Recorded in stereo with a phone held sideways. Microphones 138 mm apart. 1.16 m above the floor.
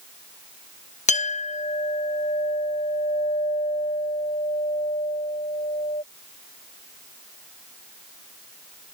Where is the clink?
55° left (ahead or behind).